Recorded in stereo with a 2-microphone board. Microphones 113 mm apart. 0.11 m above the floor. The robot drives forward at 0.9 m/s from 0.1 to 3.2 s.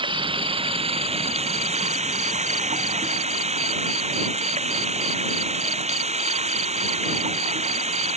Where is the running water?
50° right (ahead or behind); by 8.2 s 70° right (ahead or behind).